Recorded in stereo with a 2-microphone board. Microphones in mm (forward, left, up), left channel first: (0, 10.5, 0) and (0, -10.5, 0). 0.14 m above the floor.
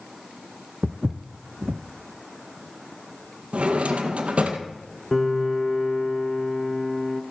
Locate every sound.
0.8 s footsteps: 70° right (ahead or behind), 0.6 m
3.5 s a drawer: 75° right (ahead or behind), 1.5 m
5.1 s a piano: 5° left (ahead or behind), 0.7 m